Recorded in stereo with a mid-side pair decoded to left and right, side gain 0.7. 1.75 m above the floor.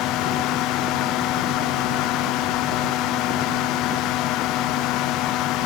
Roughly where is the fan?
Ahead left.